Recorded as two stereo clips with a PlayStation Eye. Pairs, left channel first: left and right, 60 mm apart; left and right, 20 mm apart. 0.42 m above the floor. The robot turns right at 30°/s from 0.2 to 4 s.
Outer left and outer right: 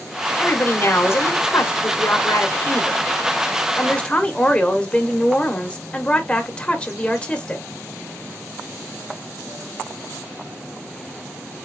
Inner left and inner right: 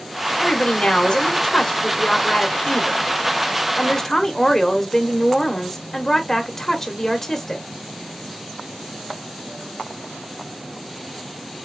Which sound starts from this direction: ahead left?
A woman speaking, at 0.4 s.